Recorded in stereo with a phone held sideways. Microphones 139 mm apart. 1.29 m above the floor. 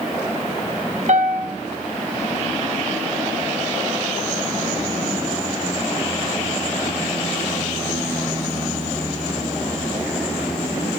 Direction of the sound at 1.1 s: 60° right (ahead or behind).